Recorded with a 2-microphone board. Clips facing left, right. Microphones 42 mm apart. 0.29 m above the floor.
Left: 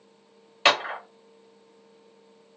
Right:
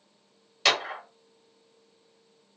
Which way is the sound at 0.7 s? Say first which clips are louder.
Left 4 dB; 30° left (ahead or behind).